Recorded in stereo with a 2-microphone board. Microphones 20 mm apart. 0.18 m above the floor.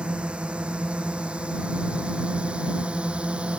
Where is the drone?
65° right (ahead or behind); by 3.6 s 70° right (ahead or behind).